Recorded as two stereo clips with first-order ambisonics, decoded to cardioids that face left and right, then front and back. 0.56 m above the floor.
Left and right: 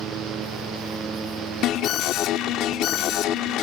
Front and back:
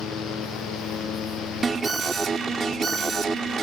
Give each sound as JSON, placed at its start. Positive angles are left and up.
{"t": 1.6, "sound": "an alarm", "azimuth_deg": 110}